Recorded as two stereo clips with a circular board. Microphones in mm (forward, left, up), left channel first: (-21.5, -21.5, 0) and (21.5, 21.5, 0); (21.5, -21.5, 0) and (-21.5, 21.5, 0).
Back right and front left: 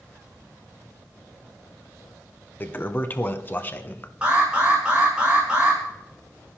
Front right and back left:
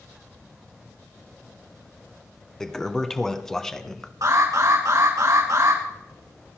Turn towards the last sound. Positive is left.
turn(degrees=115)